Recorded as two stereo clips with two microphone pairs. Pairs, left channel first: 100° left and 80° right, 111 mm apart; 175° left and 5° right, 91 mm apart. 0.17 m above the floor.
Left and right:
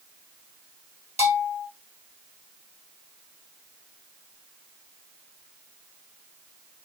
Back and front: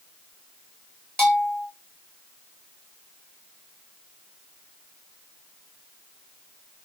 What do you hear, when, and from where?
1.2 s a bell: 90° left, 1.8 m